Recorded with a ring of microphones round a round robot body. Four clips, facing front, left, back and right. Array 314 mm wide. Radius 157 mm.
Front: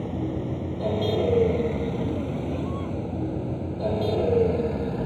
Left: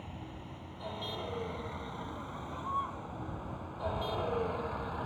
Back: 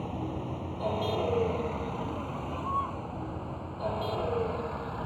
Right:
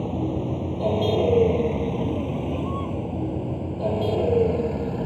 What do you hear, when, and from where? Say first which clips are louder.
0.0 s a vehicle: right 20 dB, front 6 dB; 60° right; by 5.1 s 50° right